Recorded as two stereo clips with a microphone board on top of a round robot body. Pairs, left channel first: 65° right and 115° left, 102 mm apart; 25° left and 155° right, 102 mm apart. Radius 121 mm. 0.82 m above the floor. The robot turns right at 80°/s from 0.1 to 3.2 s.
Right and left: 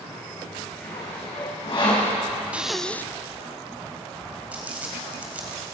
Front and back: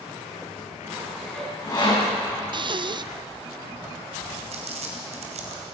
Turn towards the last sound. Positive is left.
turn(degrees=-170)